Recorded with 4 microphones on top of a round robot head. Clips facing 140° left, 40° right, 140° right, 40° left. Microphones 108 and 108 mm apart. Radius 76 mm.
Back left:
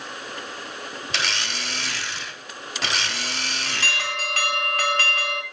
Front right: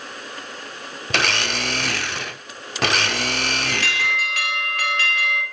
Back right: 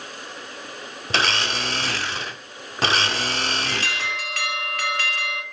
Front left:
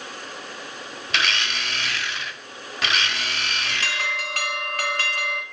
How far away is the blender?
About 0.8 m.